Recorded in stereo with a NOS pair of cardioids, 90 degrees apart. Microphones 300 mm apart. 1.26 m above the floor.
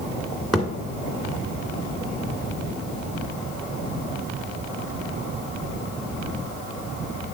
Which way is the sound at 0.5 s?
Straight ahead.